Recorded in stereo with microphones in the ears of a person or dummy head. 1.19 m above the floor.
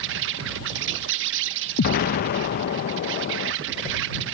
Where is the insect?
65° right (ahead or behind).